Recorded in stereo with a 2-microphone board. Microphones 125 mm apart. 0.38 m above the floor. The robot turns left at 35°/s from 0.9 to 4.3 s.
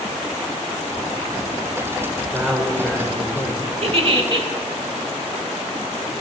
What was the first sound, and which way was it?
A man speaking, 175° right.